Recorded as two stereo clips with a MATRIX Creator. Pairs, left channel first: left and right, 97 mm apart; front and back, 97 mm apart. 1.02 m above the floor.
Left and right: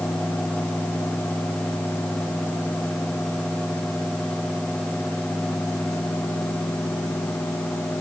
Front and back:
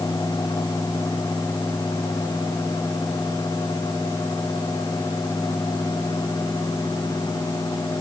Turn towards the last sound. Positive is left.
No sound to turn to.